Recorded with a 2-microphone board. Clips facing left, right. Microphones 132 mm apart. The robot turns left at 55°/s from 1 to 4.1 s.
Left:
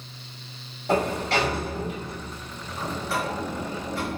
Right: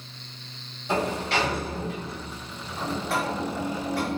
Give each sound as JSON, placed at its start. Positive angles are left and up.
{"t": 0.9, "sound": "a sliding door", "azimuth_deg": 60, "distance_m": 1.1}